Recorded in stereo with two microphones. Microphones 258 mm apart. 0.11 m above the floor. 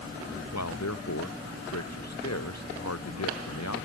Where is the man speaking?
85° left; by 3.9 s 80° left.